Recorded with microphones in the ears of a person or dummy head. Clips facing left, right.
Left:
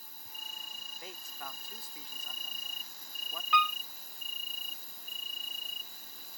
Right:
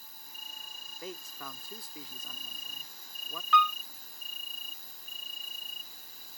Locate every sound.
0.0 s an insect: 45° left (ahead or behind)
1.0 s a man speaking: 85° right
3.5 s a piano: 15° left (ahead or behind)